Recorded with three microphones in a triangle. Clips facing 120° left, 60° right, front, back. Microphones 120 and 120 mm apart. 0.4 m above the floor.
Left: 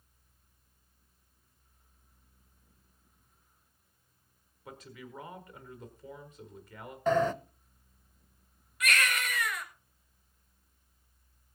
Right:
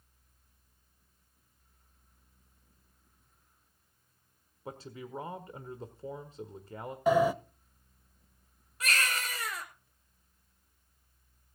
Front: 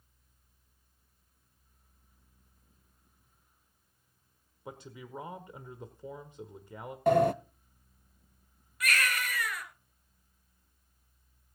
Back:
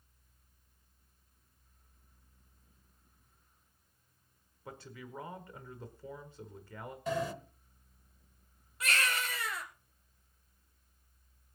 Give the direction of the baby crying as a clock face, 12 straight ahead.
4 o'clock.